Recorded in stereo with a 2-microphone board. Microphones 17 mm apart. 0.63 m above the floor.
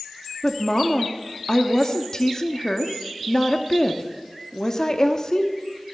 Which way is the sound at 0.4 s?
30° left (ahead or behind).